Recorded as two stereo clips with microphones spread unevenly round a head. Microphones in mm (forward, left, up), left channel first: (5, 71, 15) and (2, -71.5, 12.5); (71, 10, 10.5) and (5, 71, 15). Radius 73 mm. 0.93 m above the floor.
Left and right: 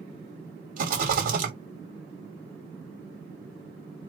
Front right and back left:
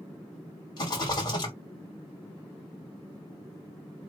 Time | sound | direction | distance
0.8 | a rattle | 100° right | 1.8 m